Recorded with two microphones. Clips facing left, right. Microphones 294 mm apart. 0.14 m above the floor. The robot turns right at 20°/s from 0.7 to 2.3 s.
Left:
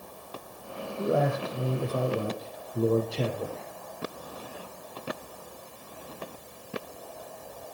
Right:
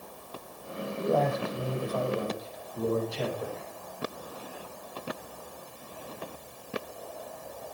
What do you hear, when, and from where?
1.0 s a man speaking: 10° left (ahead or behind), 6 m; by 3.7 s 35° left (ahead or behind), 6 m